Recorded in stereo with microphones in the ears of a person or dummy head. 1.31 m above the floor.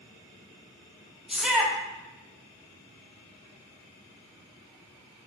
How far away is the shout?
About 0.8 m.